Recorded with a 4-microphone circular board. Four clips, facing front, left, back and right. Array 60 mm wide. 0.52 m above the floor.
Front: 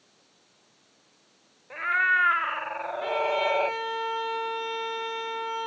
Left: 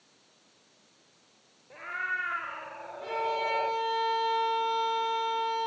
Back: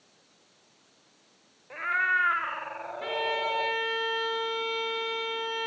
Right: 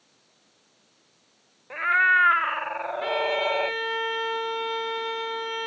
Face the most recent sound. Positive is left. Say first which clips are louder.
# right 4 dB, front 4 dB
turn(degrees=-90)